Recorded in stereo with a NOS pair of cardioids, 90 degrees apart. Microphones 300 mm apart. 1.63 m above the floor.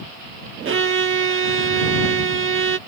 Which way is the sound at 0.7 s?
40° right.